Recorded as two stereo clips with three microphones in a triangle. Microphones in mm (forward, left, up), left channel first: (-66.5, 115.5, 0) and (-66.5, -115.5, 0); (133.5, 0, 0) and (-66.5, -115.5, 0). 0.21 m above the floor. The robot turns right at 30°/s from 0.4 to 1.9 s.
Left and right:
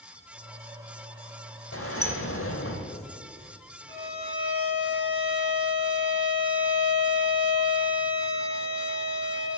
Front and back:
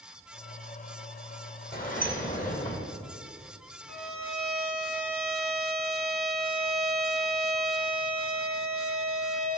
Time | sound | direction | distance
1.7 | a sliding door | 75° left | 2.5 m
3.9 | a violin | 45° left | 6 m